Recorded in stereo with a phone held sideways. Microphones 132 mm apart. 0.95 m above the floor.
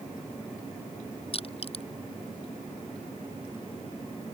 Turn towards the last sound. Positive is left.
turn(degrees=45)  # may be behind; listen again after turning